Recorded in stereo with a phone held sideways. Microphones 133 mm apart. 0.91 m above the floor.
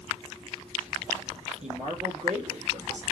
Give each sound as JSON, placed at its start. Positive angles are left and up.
{"t": 1.6, "sound": "a man speaking", "side_deg": -60, "distance_m": 3.0}